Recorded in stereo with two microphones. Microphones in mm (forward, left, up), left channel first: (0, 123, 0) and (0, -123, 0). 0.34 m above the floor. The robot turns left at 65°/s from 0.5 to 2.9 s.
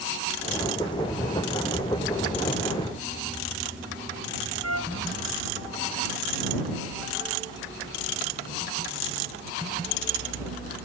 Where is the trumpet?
80° right.